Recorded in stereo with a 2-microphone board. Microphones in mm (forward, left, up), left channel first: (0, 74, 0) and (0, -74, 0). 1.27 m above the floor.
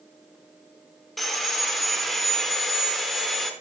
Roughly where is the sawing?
Centre.